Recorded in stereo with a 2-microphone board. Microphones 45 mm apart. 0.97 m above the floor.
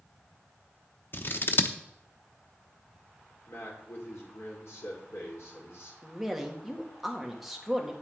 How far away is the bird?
I don't hear a bird.